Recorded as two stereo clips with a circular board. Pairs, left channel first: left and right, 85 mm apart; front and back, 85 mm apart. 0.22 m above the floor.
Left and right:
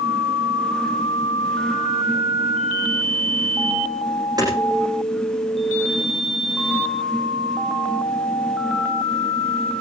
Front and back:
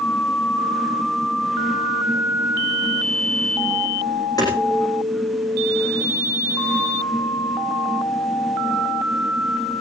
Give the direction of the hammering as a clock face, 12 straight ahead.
2 o'clock.